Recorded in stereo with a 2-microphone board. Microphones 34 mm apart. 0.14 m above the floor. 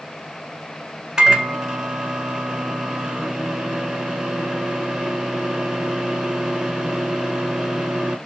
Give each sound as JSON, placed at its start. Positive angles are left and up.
{"t": 1.2, "sound": "a microwave", "side_deg": -15, "distance_m": 1.0}